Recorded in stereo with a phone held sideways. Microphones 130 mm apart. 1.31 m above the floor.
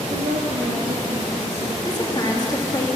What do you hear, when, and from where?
0.1 s a woman speaking: 85° right, 1.9 m; by 1.8 s 55° right (ahead or behind), 1.9 m
1.9 s a woman speaking: 30° left (ahead or behind), 2.5 m